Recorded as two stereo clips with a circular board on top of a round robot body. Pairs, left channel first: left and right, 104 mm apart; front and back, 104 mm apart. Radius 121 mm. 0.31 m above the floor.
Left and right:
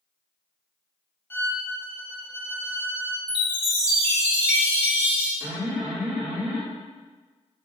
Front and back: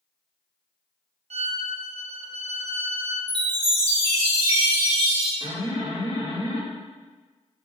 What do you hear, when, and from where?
1.3 s a violin: 160° left, 0.7 m
3.3 s a chime: 170° right, 1.5 m
5.4 s an alarm: 160° right, 1.9 m